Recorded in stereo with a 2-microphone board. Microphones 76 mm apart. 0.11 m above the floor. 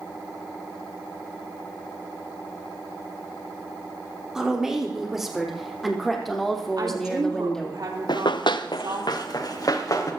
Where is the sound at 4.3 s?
10° right (ahead or behind), 5 m; by 7.8 s 10° left (ahead or behind), 4 m.